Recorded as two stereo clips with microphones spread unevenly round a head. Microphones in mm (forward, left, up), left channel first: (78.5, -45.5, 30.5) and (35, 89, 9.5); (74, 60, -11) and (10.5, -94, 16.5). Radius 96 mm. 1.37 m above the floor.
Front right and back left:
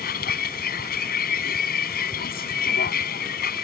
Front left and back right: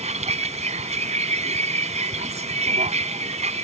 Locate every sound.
0.0 s a vehicle: 65° right